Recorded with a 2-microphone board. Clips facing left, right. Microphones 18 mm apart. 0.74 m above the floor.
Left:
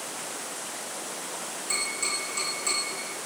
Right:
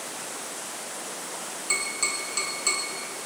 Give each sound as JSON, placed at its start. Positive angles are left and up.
{"t": 1.7, "sound": "tapping", "side_deg": -30, "distance_m": 5.0}